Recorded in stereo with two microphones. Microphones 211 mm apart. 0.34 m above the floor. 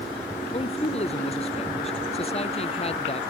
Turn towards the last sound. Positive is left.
turn(degrees=30)  # may be behind; listen again after turning